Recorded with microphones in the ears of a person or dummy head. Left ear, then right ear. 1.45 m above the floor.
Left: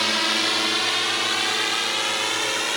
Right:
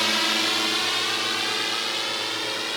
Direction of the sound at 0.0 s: 5° left (ahead or behind).